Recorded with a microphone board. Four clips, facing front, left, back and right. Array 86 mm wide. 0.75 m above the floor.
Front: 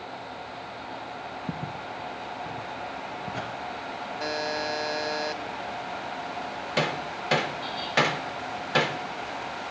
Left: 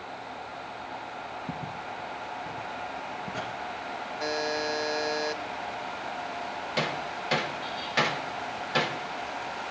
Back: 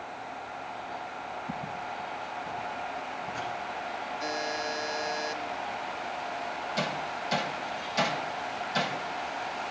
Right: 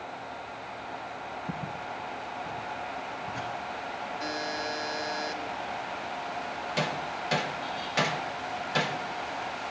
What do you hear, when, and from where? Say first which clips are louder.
1.5 s footsteps: even, front 2 dB; 10° left, 3 m; by 3.5 s 40° left, 3 m
4.2 s a buzzer: left 6 dB, front 4 dB; 30° left, 2.5 m
6.8 s hammering: left 1 dB, front 6 dB; 10° left, 1.6 m